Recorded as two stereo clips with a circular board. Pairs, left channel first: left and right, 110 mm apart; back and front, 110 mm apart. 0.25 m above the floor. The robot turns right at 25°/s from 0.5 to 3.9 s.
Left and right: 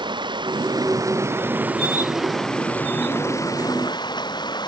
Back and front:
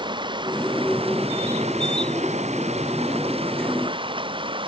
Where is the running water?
45° right; by 4.7 s 40° left.